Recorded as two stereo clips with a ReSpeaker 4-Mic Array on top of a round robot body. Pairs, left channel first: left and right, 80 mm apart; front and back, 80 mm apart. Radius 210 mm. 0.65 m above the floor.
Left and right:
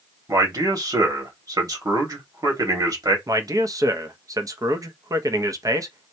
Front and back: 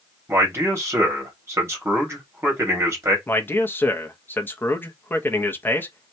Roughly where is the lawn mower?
No lawn mower in this recording.